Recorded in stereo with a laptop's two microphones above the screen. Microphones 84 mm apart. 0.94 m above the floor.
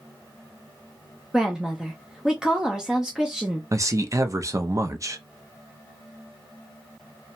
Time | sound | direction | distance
1.3 | a woman speaking | 10° right (ahead or behind) | 0.6 m
3.7 | a man speaking | 35° right (ahead or behind) | 0.5 m